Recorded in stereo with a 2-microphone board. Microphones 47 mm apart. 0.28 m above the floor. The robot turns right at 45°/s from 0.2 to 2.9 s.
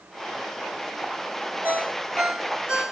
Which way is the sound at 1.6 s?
45° right (ahead or behind).